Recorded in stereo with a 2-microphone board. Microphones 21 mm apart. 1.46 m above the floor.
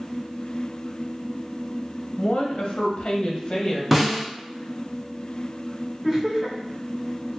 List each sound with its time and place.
2.2 s a woman speaking: 60° left (ahead or behind), 0.8 m; by 3.8 s 25° left (ahead or behind), 1.3 m
3.9 s a snare drum: 15° right (ahead or behind), 0.8 m
6.0 s laughter: 20° right (ahead or behind), 1.6 m